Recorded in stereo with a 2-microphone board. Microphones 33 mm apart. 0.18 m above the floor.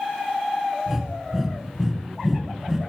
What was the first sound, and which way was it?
Breathing, 10° right (ahead or behind).